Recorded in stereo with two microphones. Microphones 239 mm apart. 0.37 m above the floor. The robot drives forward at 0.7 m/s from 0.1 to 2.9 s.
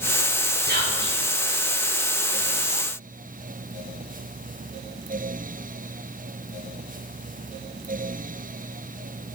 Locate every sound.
0.7 s whispering: 40° right (ahead or behind), 5.5 m